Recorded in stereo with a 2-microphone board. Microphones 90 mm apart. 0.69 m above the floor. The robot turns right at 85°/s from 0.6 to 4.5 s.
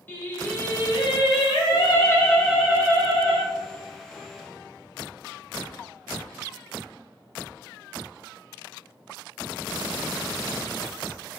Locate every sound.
0.1 s singing: 20° left, 0.6 m; by 3.5 s 95° right, 0.6 m